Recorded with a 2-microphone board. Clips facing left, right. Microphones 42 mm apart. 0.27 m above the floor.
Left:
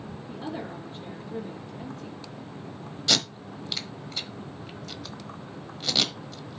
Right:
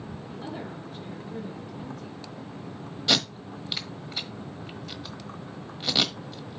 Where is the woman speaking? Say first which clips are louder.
Left 3 dB; 30° left (ahead or behind), 4 m.